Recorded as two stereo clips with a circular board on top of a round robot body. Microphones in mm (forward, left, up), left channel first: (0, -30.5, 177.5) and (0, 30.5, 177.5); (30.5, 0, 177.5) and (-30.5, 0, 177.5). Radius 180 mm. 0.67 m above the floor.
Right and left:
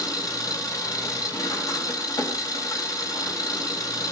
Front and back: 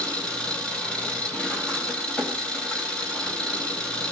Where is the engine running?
75° right, 3.5 m.